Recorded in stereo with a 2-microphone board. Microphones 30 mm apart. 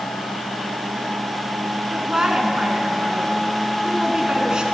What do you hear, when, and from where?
1.9 s a woman speaking: 30° right (ahead or behind), 1.2 m